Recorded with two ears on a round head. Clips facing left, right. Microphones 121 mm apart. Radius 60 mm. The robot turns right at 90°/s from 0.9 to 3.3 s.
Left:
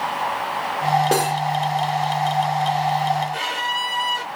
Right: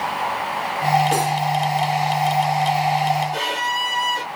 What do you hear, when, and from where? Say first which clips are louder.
1.1 s cutlery clinking: even; 85° left, 1.8 m; by 1.4 s 70° left (ahead or behind), 1.8 m
3.3 s a violin: right 2 dB; 60° right (ahead or behind), 2 m